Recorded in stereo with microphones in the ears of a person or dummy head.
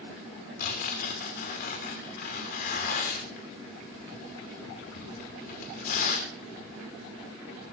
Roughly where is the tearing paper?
Left.